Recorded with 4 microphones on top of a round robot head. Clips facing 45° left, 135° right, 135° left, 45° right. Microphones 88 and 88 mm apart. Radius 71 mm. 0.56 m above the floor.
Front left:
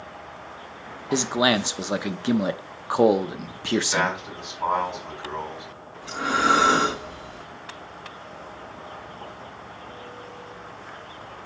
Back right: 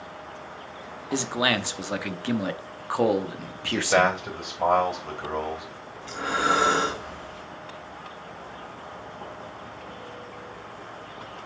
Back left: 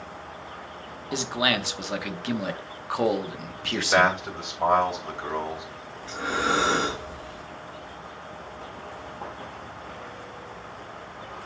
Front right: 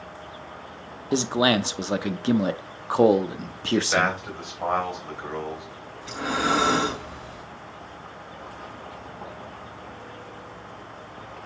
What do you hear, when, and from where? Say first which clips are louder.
1.1 s a man speaking: front left 4 dB, front right 5 dB; 10° right, 0.8 m
3.7 s a man speaking: back right 2 dB, back left 1 dB; 155° right, 3 m
6.0 s breathing: front left 3 dB, front right 1 dB; 30° right, 3 m